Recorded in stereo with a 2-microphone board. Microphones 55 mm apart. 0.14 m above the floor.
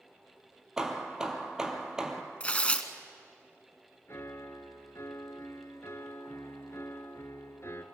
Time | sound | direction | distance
0.8 | hammering | 10° right (ahead or behind) | 1.7 m
2.4 | tearing paper | 25° left (ahead or behind) | 1.0 m
4.1 | a piano | 55° left (ahead or behind) | 1.2 m